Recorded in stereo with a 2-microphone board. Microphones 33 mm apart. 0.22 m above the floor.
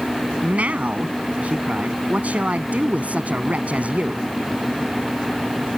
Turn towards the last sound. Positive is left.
turn(degrees=-50)  # may be behind; listen again after turning